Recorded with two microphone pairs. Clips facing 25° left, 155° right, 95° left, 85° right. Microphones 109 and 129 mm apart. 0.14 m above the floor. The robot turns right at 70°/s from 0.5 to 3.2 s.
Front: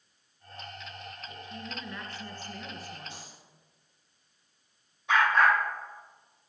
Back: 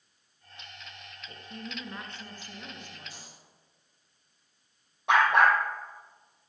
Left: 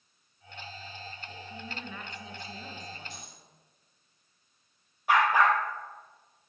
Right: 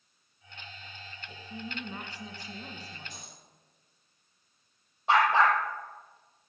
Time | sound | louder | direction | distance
1.3 | a woman speaking | back 2 dB, right 4 dB | 165° right | 2 m
3.1 | a dropped coin | front 3 dB, left 2 dB | 40° right | 6 m
5.1 | a dog barking | back 2 dB, even | 145° right | 2 m